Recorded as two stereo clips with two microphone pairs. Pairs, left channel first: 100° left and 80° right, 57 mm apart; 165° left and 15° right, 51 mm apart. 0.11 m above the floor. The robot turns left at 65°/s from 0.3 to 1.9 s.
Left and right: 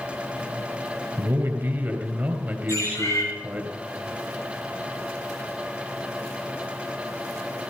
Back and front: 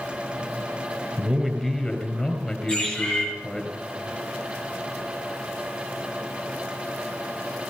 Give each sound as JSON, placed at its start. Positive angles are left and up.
{"t": 1.2, "sound": "a man speaking", "azimuth_deg": -75, "distance_m": 2.5}
{"t": 2.7, "sound": "a bird", "azimuth_deg": 90, "distance_m": 8.0}